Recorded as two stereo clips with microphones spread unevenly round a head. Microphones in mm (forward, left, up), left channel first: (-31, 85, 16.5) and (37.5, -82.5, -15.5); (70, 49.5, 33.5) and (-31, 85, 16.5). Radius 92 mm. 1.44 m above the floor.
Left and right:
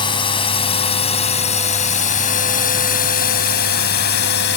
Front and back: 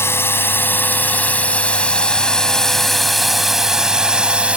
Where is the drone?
50° left; by 4.6 s 80° left.